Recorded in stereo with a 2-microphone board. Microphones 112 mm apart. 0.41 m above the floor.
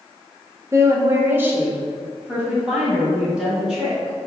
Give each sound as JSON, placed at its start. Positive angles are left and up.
{"t": 0.7, "sound": "a woman speaking", "side_deg": -25, "distance_m": 0.9}